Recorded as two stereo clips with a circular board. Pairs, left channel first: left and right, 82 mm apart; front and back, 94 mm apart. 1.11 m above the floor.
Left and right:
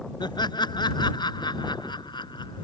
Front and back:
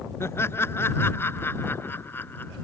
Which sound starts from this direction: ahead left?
Laughter, at 0.2 s.